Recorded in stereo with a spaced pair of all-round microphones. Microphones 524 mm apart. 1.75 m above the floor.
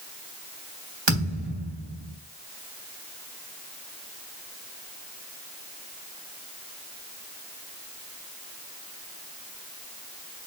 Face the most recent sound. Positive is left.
turn(degrees=-55)  # may be behind; listen again after turning